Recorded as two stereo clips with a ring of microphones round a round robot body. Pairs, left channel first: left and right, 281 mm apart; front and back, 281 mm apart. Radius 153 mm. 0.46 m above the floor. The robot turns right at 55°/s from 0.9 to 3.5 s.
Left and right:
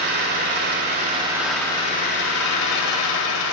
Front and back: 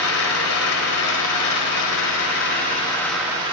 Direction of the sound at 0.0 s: 35° right.